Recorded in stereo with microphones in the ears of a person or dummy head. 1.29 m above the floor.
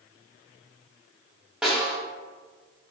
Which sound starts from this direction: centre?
A snare drum, at 1.6 s.